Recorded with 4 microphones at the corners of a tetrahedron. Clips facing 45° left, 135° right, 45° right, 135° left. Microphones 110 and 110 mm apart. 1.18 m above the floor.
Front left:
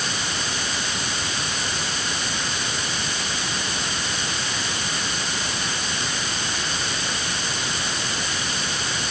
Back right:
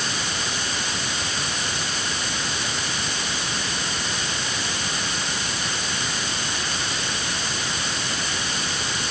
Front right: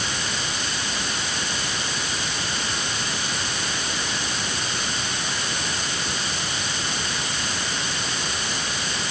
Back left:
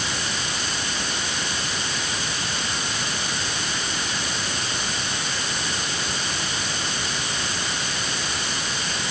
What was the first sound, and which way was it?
Only background noise.